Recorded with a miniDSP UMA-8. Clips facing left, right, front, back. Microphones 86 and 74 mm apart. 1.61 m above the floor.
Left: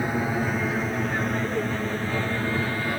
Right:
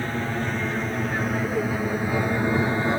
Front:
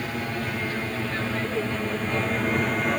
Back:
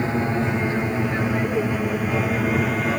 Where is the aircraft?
155° left; by 3.0 s 95° right.